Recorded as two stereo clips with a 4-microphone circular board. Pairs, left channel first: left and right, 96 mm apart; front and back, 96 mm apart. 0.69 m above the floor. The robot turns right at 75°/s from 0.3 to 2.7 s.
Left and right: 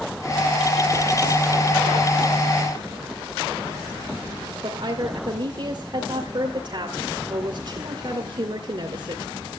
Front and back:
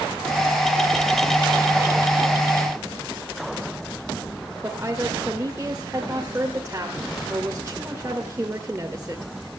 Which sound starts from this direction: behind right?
A woman speaking, at 4.6 s.